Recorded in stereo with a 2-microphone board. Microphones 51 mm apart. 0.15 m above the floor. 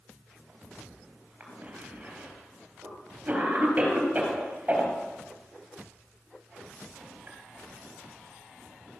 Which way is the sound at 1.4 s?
35° right (ahead or behind).